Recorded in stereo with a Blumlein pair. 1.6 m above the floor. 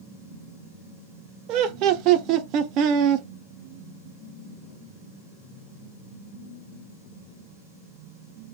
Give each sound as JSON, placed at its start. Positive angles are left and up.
{"t": 1.5, "sound": "laughter", "azimuth_deg": -35, "distance_m": 0.5}